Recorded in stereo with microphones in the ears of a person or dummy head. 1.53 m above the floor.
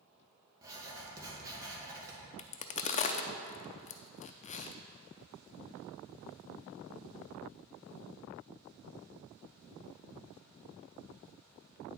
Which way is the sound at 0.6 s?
15° right (ahead or behind).